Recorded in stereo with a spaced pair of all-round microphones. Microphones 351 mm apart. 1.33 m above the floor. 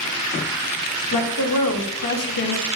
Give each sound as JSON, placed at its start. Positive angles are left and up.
{"t": 1.1, "sound": "a woman speaking", "side_deg": 65, "distance_m": 0.7}